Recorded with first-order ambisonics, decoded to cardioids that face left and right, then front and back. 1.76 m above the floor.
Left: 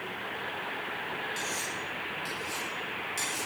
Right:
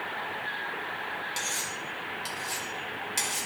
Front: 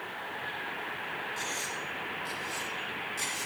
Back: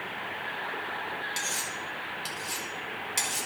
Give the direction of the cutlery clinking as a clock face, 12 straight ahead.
5 o'clock.